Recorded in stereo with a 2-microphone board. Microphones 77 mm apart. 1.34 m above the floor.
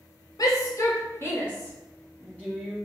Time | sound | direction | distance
0.4 | a shout | 50° left (ahead or behind) | 0.9 m